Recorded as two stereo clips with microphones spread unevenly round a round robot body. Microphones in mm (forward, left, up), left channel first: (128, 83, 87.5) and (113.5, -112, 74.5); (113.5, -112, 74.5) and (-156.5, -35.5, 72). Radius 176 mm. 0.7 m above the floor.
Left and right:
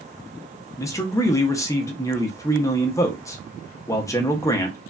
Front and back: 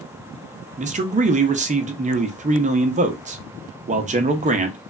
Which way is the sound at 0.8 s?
145° left.